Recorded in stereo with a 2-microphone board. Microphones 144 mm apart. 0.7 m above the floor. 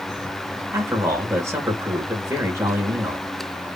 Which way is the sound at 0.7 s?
20° right (ahead or behind).